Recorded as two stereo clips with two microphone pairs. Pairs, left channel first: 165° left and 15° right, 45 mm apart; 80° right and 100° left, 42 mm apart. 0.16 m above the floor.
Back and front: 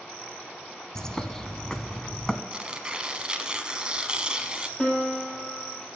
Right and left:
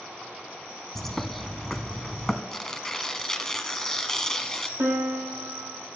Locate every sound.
0.9 s a bird: 135° right, 0.7 m
2.5 s tearing paper: 35° right, 0.8 m
4.8 s a piano: 95° left, 2 m